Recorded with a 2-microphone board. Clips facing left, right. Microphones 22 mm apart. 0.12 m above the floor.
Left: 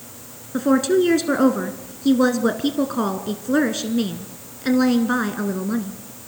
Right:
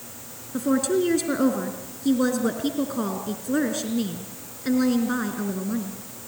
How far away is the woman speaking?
About 1.2 m.